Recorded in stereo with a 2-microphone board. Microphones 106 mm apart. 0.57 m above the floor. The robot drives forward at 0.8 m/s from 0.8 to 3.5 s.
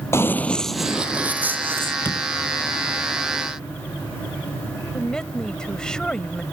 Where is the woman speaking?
5° left (ahead or behind).